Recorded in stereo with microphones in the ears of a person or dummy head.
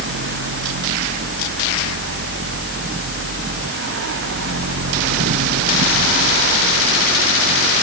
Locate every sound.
Only background noise.